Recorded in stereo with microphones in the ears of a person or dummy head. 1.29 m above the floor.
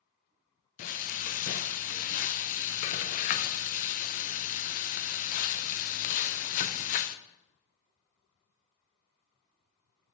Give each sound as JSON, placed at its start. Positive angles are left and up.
{"t": 0.8, "sound": "frying", "side_deg": 45, "distance_m": 0.6}